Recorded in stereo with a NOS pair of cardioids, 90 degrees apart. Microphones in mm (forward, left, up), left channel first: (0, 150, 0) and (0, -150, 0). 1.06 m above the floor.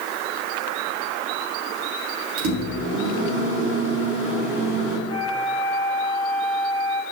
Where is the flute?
45° right, 2 m.